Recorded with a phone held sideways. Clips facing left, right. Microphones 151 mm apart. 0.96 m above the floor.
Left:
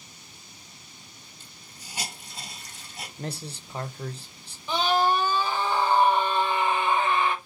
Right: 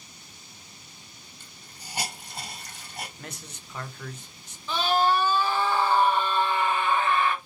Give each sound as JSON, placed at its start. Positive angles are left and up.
{"t": 1.4, "sound": "a hiss", "side_deg": -55, "distance_m": 1.6}
{"t": 3.2, "sound": "a man speaking", "side_deg": 30, "distance_m": 0.5}
{"t": 4.7, "sound": "a scream", "side_deg": 15, "distance_m": 1.0}